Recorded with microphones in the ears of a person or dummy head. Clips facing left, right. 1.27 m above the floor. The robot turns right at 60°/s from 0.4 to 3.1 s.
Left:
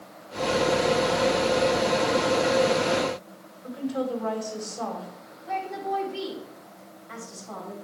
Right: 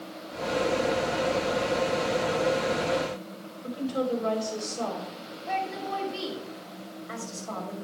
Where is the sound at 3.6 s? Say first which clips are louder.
Even; 35° right (ahead or behind), 4.5 m.